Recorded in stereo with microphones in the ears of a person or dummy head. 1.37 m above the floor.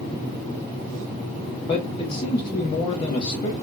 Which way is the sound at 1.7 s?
25° left (ahead or behind).